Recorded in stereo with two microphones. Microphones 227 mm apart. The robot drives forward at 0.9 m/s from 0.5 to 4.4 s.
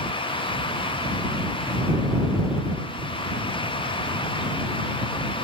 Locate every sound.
Only background noise.